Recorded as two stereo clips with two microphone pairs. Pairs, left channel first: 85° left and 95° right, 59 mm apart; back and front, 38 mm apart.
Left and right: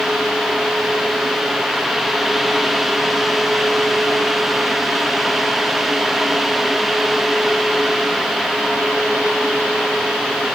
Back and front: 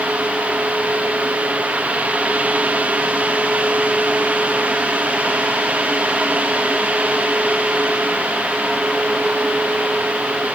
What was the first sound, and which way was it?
Only background noise.